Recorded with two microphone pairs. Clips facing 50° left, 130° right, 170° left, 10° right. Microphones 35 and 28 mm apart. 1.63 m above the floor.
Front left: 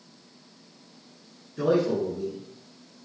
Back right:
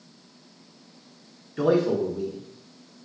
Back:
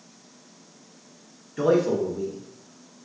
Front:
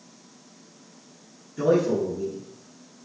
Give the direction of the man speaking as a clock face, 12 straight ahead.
5 o'clock.